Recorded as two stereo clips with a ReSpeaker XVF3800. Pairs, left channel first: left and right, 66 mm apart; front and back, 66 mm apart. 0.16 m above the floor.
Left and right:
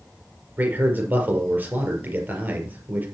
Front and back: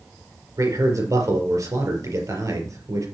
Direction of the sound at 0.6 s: 150° right.